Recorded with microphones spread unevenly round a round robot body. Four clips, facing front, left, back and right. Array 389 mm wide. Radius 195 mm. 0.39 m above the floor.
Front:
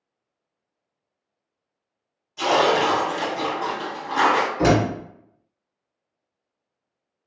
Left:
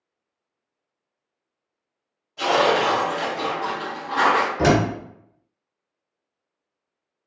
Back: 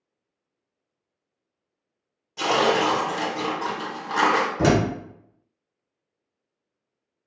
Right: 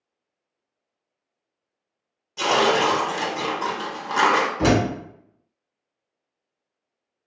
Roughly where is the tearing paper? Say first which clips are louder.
Left 1 dB, front 2 dB; behind right.